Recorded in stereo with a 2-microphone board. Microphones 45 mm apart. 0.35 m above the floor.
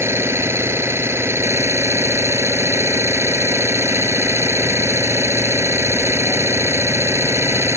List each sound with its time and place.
0.0 s an engine running: 80° right